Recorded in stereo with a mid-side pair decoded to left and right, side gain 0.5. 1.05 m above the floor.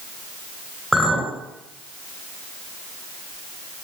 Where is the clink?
5° right, 3 m.